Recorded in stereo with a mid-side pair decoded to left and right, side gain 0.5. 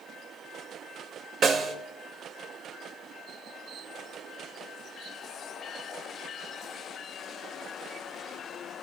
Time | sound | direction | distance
1.4 | a snare drum | 50° right | 1.2 m